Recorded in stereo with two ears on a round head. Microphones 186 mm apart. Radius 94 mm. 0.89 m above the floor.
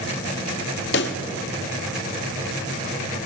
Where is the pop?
55° left (ahead or behind), 0.6 m.